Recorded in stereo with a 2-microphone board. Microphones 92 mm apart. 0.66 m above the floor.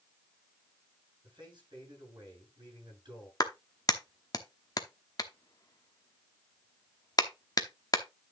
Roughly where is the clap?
Left.